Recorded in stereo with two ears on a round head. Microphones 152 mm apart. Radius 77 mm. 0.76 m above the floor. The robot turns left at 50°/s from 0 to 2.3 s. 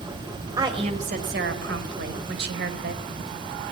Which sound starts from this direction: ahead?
A woman speaking, at 0.6 s.